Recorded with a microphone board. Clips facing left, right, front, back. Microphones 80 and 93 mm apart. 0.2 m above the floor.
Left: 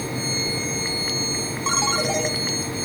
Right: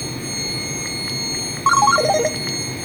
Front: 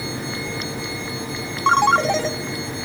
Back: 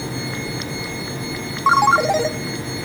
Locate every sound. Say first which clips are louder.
1.7 s a ringtone: right 11 dB, back 2 dB; 100° right, 0.5 m